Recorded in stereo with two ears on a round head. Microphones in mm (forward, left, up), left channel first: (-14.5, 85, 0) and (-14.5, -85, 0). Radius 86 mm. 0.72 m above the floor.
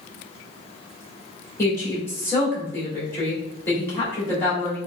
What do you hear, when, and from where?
1.6 s a woman speaking: 10° left (ahead or behind), 2 m